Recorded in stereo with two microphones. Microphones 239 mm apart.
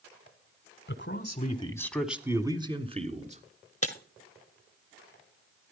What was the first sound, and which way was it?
A man speaking, 50° left (ahead or behind).